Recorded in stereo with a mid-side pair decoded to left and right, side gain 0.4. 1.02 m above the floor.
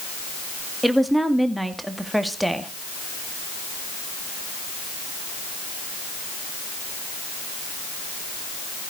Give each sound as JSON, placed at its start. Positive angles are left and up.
{"t": 0.8, "sound": "a woman speaking", "azimuth_deg": -5, "distance_m": 2.0}